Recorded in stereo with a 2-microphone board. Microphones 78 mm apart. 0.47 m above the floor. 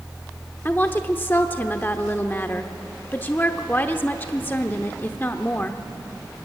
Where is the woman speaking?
25° left (ahead or behind), 0.8 m.